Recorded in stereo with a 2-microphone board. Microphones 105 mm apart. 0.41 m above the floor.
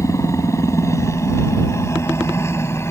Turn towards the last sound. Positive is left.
turn(degrees=25)  # may be behind; listen again after turning